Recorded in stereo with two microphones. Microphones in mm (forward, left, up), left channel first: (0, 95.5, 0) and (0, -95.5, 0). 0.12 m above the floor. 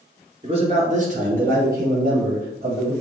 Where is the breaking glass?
I don't hear breaking glass.